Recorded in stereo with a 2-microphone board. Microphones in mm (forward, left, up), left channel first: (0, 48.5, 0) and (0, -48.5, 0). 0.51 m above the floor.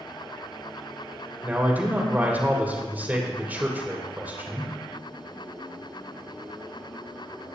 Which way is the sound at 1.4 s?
15° right (ahead or behind).